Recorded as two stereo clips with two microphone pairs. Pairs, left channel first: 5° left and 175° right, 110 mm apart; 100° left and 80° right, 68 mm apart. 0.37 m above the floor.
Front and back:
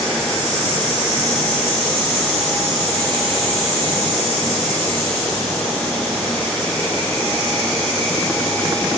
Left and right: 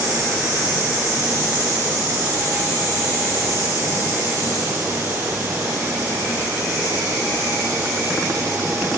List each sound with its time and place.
Only background noise.